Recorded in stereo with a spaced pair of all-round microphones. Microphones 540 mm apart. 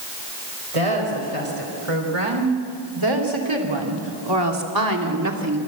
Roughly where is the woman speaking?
Right.